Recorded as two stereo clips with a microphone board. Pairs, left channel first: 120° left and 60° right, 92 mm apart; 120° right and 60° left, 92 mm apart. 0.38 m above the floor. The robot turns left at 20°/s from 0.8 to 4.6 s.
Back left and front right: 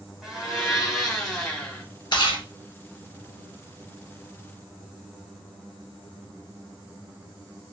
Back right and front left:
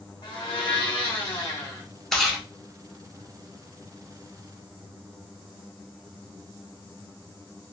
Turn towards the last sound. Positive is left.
turn(degrees=105)